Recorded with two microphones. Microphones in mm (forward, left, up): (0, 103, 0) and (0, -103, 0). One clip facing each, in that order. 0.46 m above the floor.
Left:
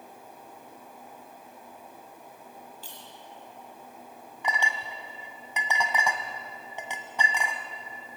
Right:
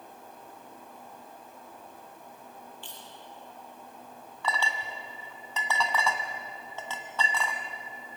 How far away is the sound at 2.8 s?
About 7.5 m.